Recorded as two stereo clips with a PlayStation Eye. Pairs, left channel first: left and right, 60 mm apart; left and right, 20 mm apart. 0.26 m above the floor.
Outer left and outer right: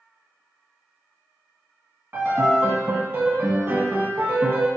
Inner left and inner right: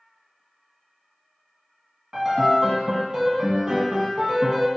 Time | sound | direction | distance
2.1 | a piano | 35° right (ahead or behind) | 0.6 m